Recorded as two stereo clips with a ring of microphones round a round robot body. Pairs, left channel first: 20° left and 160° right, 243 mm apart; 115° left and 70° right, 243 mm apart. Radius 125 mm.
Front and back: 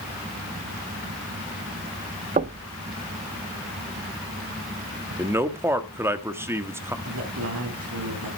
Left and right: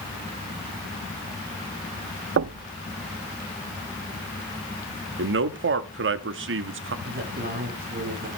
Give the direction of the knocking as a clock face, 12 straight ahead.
3 o'clock.